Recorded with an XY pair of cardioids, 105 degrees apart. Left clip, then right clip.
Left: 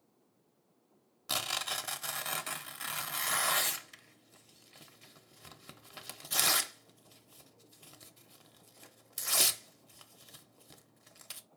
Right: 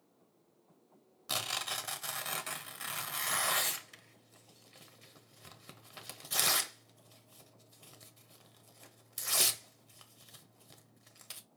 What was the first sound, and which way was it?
Tearing paper, 15° left.